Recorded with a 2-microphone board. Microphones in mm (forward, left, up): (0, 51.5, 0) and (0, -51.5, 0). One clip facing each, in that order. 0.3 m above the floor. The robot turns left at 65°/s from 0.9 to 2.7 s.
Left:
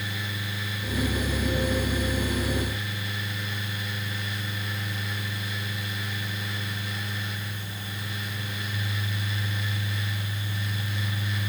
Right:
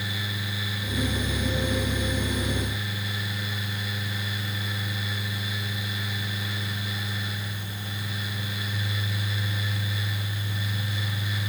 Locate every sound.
Only background noise.